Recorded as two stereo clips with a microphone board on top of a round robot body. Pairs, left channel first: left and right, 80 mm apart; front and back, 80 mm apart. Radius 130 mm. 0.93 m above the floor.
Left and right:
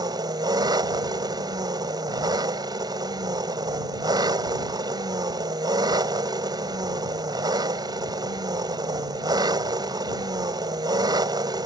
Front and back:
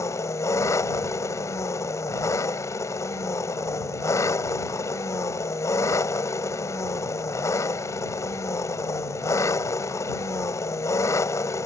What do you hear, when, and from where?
0.0 s an engine running: 55° right